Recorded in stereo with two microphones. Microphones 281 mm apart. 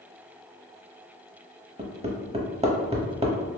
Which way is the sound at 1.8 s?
25° right (ahead or behind).